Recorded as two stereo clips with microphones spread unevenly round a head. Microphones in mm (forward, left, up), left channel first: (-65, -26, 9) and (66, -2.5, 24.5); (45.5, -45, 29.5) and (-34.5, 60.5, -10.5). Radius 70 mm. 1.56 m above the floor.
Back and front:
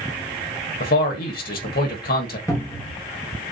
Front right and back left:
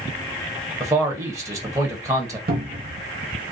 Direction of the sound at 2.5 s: 115° left.